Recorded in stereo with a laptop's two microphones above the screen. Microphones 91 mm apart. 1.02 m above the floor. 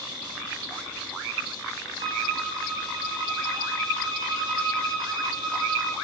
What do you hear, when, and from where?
2.0 s a violin: 60° left (ahead or behind), 5 m